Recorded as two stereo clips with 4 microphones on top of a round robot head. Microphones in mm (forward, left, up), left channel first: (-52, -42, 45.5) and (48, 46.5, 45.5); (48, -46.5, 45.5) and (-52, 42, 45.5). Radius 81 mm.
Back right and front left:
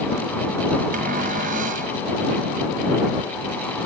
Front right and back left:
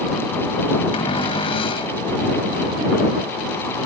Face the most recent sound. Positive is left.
turn(degrees=10)